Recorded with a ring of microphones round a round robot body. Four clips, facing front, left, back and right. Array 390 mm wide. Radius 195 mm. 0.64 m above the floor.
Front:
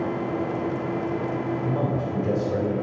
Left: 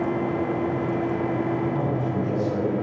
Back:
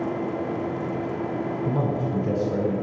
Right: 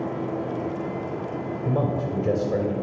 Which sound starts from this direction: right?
A man speaking, at 1.6 s.